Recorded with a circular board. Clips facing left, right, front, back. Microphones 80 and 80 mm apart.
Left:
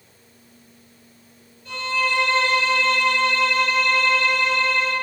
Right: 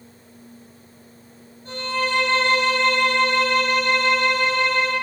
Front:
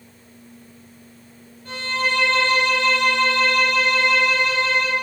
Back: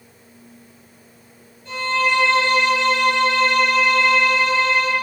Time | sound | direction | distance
1.6 | a violin | 45° right | 2.5 m